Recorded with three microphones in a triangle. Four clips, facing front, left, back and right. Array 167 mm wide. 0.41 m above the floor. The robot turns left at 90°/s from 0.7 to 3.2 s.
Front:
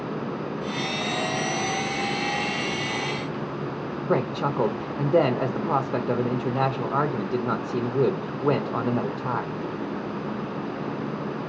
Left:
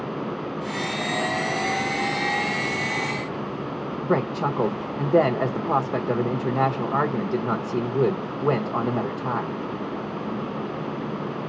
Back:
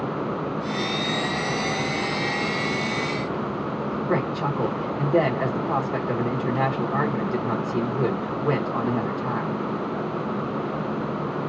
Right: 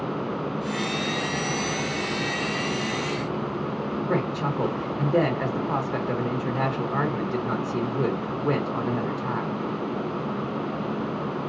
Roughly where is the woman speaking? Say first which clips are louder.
Left 5 dB, front 2 dB; ahead left.